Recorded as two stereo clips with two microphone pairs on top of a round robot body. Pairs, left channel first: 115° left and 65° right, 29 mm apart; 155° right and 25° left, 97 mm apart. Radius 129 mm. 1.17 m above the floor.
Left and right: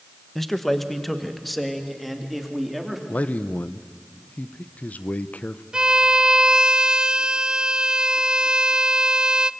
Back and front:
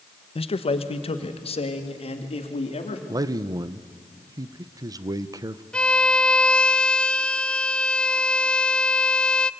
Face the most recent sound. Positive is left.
turn(degrees=-105)